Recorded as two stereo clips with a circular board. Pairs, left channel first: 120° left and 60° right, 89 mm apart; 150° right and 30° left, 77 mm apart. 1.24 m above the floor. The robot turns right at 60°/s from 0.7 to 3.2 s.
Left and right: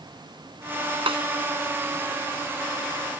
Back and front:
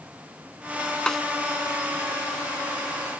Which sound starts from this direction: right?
A snare drum, at 1.1 s.